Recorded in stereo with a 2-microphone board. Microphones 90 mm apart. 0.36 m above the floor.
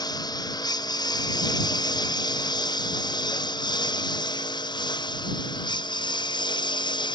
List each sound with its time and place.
0.0 s a lawn mower: 45° left (ahead or behind); by 7.2 s 50° left (ahead or behind)